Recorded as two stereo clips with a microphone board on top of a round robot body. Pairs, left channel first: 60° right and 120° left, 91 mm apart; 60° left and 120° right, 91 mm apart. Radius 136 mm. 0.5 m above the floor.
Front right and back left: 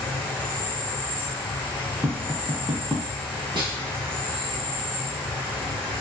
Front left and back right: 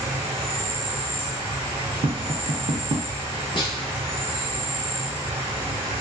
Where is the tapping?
150° right, 0.5 m.